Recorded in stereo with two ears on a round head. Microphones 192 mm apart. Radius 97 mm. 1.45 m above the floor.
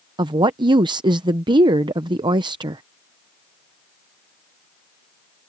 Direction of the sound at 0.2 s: 20° right (ahead or behind).